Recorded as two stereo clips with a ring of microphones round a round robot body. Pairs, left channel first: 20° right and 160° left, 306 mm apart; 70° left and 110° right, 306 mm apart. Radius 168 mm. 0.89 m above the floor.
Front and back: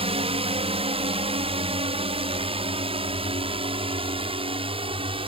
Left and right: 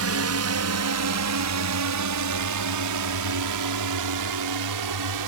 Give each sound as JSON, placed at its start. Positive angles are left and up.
{"t": 0.0, "sound": "a drone", "azimuth_deg": -135}